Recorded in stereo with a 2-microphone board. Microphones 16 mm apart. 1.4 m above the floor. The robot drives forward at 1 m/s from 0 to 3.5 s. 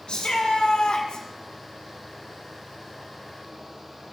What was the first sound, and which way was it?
A shout, 75° left (ahead or behind).